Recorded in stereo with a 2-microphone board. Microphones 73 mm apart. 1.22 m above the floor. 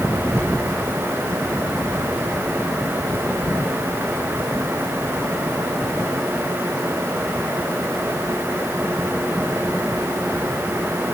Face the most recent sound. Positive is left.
No sound to turn to.